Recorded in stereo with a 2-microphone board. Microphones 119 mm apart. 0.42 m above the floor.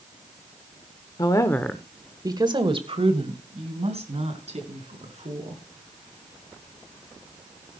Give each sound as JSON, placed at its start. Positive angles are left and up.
{"t": 1.2, "sound": "a woman speaking", "side_deg": 40, "distance_m": 1.1}